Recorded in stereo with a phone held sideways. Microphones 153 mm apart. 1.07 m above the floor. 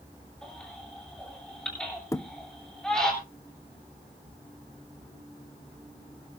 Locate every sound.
0.4 s a baby crying: 5° left (ahead or behind), 7 m
2.1 s a thud: 20° left (ahead or behind), 0.7 m